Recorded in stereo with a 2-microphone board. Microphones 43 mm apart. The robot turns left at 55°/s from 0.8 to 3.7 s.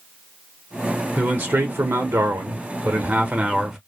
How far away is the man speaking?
About 0.7 m.